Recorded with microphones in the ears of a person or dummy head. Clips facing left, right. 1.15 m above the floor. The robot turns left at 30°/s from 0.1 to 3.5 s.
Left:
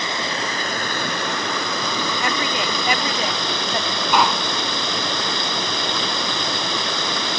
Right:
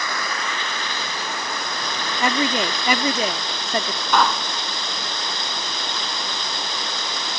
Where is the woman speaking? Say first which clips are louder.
Right 7 dB; 70° right; by 4.0 s 110° right.